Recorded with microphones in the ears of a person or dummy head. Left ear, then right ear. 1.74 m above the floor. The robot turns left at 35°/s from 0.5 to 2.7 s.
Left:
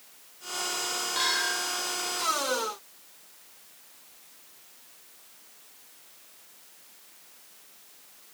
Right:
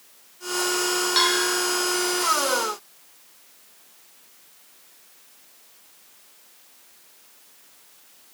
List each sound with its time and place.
1.2 s a bell: 50° right (ahead or behind), 9.5 m; by 1.6 s 65° right (ahead or behind), 9.5 m